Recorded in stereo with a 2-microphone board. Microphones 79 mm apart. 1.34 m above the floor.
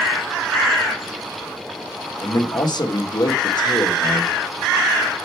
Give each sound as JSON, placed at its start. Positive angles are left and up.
{"t": 2.2, "sound": "a man speaking", "side_deg": 60, "distance_m": 1.4}